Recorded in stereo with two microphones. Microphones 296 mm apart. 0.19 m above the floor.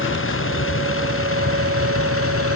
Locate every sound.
0.0 s a vehicle: 45° left (ahead or behind); by 2.6 s 50° left (ahead or behind)